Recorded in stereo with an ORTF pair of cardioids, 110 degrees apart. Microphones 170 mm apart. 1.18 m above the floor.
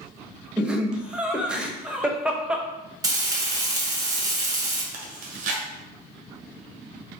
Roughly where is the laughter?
Ahead.